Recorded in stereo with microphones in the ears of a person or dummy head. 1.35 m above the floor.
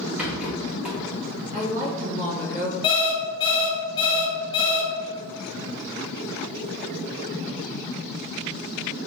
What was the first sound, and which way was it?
A rattle, centre (ahead or behind).